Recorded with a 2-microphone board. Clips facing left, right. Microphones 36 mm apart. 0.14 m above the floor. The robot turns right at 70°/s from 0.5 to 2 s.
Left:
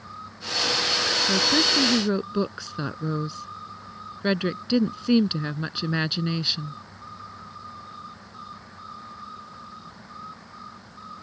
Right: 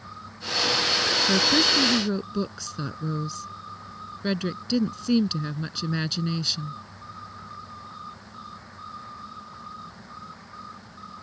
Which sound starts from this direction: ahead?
A woman speaking, at 1.3 s.